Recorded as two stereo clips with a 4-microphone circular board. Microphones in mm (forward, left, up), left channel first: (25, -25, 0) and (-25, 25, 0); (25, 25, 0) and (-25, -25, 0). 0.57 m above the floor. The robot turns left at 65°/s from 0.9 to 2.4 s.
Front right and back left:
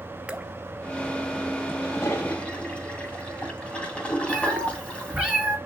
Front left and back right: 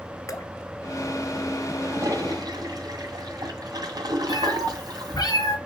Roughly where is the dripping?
Ahead left.